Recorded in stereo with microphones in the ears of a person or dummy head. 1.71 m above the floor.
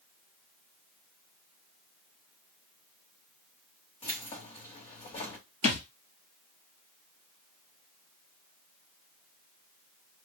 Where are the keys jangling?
25° left (ahead or behind), 1.0 m.